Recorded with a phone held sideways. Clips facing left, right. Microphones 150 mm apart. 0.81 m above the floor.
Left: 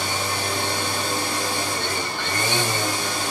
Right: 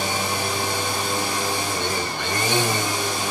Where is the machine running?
15° right (ahead or behind), 1.4 m.